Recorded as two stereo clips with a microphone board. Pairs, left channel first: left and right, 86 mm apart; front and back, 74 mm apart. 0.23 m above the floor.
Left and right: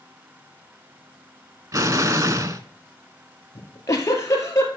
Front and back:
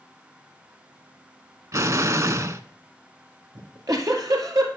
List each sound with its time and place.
1.7 s an explosion: 135° right, 0.6 m
3.5 s a giggle: 145° left, 2 m